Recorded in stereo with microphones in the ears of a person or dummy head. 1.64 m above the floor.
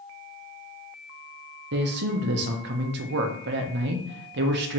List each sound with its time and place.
1.7 s a man speaking: 55° right (ahead or behind), 0.6 m